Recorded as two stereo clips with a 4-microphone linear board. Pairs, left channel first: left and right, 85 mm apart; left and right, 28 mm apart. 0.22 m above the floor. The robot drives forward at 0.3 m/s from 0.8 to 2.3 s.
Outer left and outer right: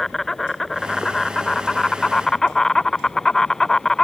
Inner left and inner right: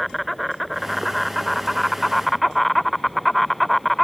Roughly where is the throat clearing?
No throat clearing in this recording.